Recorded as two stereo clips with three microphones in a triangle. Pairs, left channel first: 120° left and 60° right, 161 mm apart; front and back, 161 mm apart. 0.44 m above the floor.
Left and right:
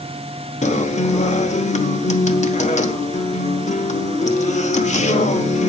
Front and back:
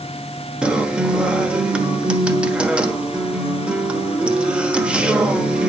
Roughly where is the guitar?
Left.